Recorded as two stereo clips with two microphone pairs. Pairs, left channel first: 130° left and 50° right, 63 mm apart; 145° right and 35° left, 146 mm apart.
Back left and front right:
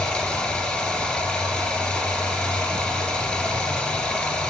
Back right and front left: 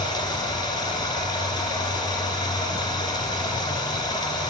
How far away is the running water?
About 1.4 m.